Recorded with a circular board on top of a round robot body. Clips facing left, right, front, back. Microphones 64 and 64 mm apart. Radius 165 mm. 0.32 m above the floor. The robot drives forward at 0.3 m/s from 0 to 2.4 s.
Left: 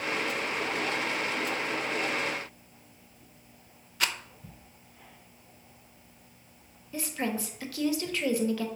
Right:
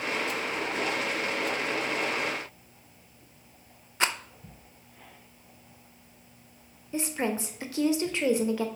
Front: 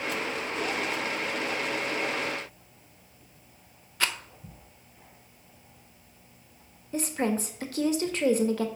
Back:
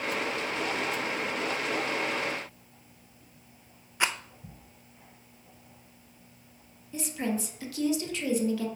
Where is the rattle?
125° right, 0.7 m.